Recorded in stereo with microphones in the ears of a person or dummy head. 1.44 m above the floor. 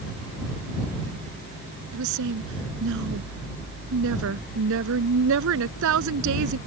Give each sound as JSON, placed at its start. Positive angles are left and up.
{"t": 1.9, "sound": "a woman speaking", "side_deg": -70}